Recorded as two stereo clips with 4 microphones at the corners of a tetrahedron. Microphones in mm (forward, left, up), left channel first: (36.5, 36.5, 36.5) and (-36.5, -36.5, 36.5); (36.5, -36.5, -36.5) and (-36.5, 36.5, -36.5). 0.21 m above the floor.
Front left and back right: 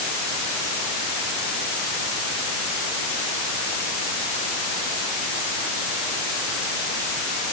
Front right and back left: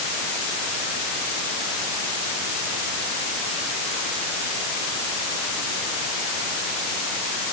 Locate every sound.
Only background noise.